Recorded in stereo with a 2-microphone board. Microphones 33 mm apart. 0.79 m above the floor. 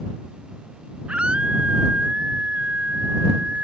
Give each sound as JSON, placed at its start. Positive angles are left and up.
{"t": 1.1, "sound": "a scream", "side_deg": -35}